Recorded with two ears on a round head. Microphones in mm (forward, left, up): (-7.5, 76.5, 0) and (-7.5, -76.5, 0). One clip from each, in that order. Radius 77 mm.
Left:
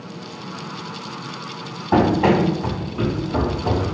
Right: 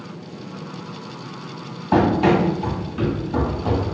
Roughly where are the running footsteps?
Right.